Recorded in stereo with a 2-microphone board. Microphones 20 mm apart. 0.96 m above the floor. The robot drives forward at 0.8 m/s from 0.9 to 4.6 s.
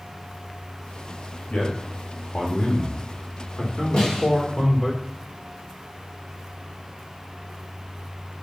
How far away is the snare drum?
About 4 m.